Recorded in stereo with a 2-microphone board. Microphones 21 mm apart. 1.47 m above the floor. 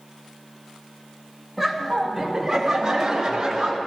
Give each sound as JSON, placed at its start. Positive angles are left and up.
{"t": 1.6, "sound": "laughter", "side_deg": 0, "distance_m": 1.9}